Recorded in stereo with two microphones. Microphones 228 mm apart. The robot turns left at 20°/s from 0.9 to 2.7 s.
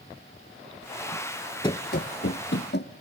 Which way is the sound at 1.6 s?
20° left (ahead or behind).